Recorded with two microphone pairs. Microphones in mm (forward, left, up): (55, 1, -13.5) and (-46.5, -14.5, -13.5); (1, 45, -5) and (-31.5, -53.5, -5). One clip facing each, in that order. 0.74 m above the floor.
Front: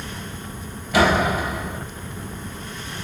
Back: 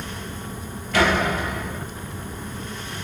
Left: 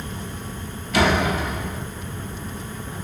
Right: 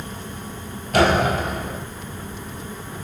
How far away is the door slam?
About 2 m.